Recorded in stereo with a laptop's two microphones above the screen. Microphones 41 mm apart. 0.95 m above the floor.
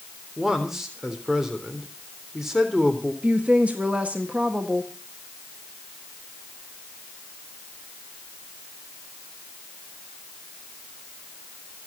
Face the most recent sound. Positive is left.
turn(degrees=-35)  # may be behind; listen again after turning